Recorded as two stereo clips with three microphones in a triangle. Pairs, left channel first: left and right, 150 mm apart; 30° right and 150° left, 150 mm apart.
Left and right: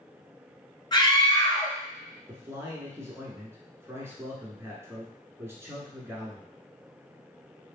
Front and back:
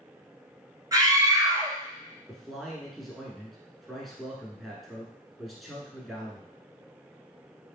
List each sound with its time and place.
0.9 s a scream: 110° left, 1.2 m
2.3 s a man speaking: 120° right, 1.3 m